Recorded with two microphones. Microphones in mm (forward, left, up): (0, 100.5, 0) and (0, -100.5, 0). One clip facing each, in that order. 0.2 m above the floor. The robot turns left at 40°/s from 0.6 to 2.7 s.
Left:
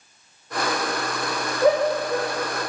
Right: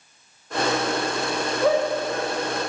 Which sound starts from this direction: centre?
A shout, at 1.6 s.